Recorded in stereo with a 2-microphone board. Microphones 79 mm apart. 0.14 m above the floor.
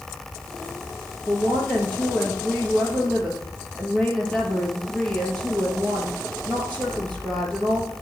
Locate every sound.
1.3 s a woman speaking: 15° left (ahead or behind), 3.5 m